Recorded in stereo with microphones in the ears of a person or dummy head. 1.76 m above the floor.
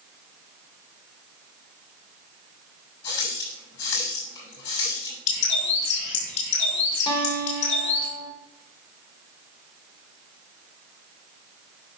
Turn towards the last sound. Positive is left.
turn(degrees=30)  # may be behind; listen again after turning